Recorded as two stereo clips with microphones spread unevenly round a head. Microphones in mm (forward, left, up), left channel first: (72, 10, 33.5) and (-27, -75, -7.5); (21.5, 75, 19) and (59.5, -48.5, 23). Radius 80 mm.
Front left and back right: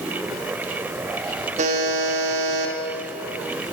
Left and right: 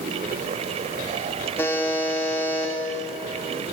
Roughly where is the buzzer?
Behind.